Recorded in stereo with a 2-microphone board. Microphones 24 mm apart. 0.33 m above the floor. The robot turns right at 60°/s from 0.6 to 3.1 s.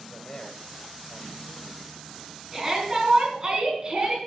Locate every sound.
0.1 s a man speaking: 40° left (ahead or behind), 1.3 m; by 2.9 s 20° right (ahead or behind), 1.3 m
2.5 s a shout: 170° right, 4 m; by 4.2 s 135° right, 4 m